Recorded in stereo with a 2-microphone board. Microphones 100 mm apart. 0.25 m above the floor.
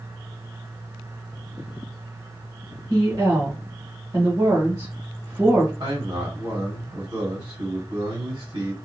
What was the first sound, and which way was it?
A woman speaking, 45° right (ahead or behind).